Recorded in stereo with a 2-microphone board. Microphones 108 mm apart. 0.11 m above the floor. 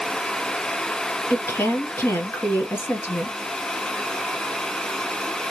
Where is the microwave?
I don't hear a microwave.